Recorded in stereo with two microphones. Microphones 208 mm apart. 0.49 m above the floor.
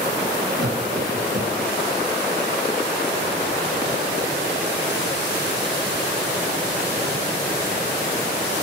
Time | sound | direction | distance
0.6 | laughter | 60° right (ahead or behind) | 4 m